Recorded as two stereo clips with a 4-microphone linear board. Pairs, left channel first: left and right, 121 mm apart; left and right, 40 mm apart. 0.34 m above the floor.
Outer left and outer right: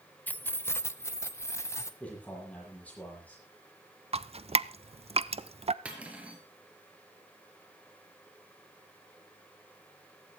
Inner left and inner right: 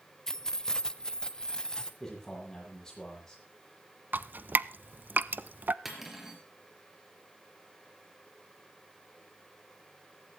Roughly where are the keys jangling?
Centre.